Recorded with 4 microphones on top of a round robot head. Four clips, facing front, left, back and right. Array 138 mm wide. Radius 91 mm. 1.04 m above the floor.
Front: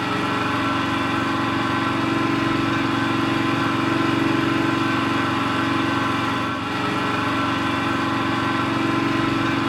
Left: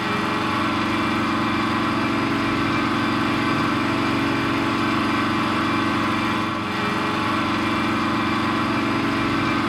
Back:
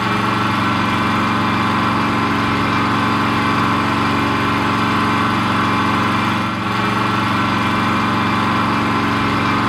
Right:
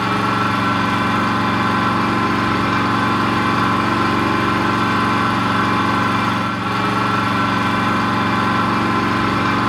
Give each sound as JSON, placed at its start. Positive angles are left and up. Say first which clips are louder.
{"t": 0.0, "sound": "an engine running", "louder": "right 5 dB, back 5 dB", "azimuth_deg": -160, "distance_m": 3.5}